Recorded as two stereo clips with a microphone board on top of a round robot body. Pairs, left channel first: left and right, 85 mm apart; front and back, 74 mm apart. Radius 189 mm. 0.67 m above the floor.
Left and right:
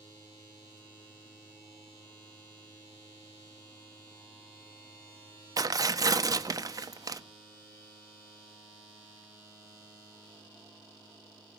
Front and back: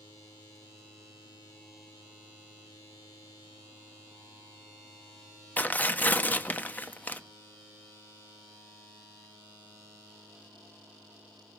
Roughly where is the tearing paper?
Ahead right.